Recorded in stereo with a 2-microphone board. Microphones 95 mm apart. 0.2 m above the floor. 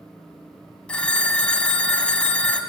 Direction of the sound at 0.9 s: 10° left (ahead or behind).